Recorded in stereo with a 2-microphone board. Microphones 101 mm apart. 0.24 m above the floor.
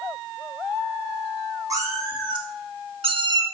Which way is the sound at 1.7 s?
35° right (ahead or behind).